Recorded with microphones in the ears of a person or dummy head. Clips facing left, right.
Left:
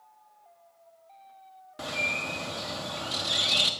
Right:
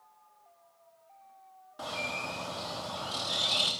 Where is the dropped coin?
No dropped coin in this recording.